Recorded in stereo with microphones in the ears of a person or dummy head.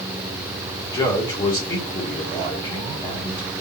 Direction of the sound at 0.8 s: 20° left (ahead or behind).